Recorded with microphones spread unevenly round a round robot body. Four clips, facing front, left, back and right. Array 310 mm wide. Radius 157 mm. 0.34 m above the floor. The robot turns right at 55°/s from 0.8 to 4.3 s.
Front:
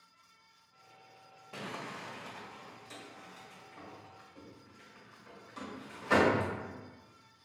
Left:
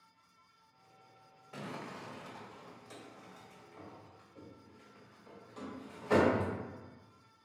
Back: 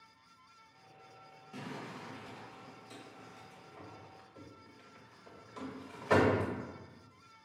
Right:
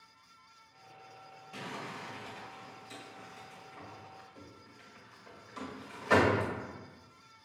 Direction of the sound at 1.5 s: 10° left.